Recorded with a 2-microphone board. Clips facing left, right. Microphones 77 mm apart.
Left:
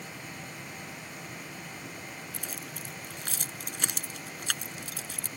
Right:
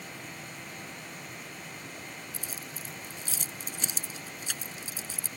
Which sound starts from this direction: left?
Keys jangling, at 2.3 s.